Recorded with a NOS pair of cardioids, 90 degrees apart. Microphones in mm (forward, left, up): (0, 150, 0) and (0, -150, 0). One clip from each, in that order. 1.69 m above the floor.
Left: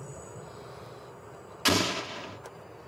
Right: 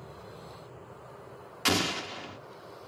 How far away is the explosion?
About 0.6 m.